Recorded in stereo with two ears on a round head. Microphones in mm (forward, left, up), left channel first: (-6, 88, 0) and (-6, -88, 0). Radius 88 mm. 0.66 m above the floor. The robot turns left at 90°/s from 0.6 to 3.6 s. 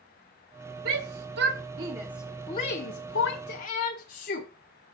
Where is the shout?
50° right (ahead or behind), 1.1 m; by 4.5 s 50° left (ahead or behind), 1.1 m.